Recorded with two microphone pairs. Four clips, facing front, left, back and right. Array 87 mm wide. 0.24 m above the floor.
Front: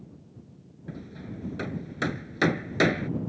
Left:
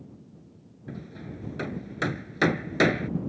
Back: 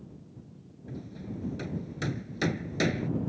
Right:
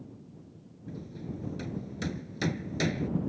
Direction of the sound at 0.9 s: 55° left.